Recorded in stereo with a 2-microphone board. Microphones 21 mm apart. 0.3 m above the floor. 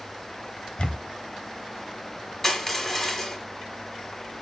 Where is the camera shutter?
40° left (ahead or behind), 1.2 m.